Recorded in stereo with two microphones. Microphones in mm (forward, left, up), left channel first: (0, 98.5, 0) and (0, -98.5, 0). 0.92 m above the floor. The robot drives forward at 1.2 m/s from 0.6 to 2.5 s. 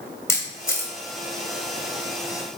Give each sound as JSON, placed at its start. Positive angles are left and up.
{"t": 0.3, "sound": "a camera shutter", "side_deg": 15, "distance_m": 2.5}